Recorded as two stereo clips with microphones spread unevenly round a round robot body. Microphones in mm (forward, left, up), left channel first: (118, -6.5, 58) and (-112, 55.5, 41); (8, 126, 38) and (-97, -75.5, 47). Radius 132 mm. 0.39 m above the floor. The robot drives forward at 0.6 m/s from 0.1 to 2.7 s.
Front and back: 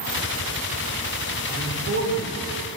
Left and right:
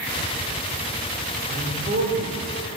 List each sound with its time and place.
1.5 s a man speaking: 155° right, 1.7 m; by 2.3 s 165° right, 2.0 m